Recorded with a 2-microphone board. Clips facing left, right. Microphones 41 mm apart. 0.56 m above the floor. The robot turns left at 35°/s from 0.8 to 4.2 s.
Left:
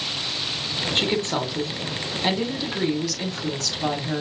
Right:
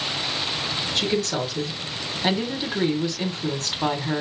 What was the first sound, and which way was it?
A woman speaking, 45° left.